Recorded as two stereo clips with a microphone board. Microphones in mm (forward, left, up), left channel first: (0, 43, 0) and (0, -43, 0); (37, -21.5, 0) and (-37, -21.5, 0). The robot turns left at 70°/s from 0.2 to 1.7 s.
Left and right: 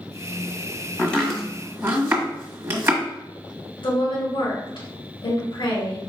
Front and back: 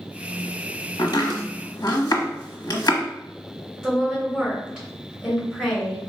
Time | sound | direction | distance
1.0 | chopping | 20° left | 1.2 m
3.8 | a woman speaking | 90° left | 2.5 m